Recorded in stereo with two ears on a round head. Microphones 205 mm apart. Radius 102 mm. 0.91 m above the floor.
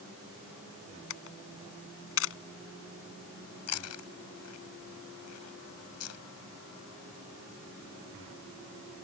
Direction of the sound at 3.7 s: 80° left.